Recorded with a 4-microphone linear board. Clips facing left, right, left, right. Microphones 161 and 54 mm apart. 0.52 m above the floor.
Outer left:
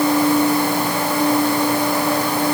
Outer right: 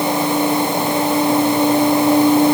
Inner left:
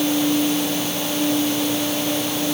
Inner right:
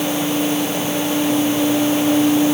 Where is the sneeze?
I don't hear a sneeze.